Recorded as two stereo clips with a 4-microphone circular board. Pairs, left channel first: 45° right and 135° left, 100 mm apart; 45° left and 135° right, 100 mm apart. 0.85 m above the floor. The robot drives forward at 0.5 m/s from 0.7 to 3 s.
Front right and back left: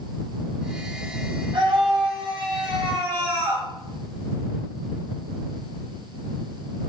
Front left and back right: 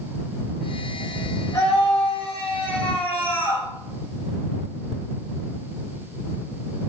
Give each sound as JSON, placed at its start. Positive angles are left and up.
{"t": 1.5, "sound": "a scream", "azimuth_deg": 105, "distance_m": 4.0}